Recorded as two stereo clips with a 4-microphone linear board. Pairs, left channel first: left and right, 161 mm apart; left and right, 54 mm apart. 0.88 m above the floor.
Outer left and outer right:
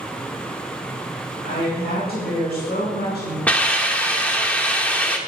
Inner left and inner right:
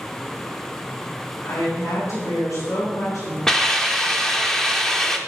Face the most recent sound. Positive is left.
turn(degrees=10)  # may be behind; listen again after turning